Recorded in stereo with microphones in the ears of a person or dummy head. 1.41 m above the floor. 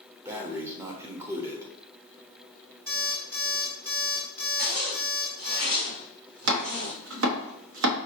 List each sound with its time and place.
0.2 s breathing: 15° right (ahead or behind), 0.7 m
2.9 s an alarm clock: 10° right (ahead or behind), 1.3 m
4.6 s a zipper: 45° right (ahead or behind), 1.5 m
6.5 s chopping: 80° right, 0.8 m